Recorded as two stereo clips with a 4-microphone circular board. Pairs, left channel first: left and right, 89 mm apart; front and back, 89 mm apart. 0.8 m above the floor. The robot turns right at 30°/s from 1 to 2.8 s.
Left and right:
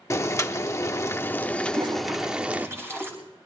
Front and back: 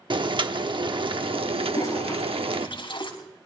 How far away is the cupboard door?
No cupboard door in this recording.